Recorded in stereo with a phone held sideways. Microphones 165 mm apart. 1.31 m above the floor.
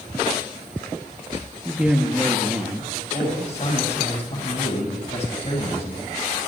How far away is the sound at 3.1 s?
About 7 m.